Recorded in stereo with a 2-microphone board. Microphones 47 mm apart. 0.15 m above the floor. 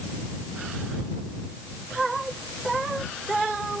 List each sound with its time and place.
Only background noise.